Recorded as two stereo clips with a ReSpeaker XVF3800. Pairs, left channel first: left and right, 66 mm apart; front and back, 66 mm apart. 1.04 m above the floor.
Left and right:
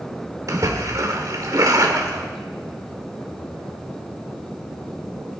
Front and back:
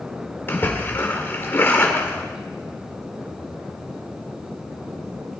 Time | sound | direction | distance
0.5 | a splash | 55° right | 2.0 m